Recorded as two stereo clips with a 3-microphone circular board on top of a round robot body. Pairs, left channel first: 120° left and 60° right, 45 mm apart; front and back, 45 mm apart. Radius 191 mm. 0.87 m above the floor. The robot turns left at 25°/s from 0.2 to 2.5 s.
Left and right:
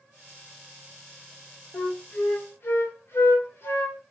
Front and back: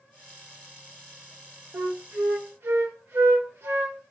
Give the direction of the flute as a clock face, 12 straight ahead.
6 o'clock.